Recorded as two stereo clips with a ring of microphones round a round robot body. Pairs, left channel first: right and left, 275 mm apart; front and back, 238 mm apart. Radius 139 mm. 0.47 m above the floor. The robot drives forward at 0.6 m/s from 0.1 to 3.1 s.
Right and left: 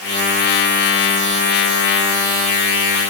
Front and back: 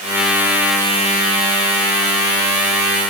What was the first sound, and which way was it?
Only background noise.